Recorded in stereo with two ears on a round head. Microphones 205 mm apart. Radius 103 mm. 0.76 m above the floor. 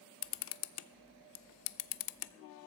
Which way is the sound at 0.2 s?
65° left (ahead or behind).